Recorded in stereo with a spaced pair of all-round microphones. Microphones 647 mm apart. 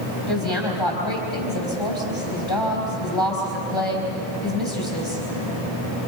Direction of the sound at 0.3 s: 40° left (ahead or behind).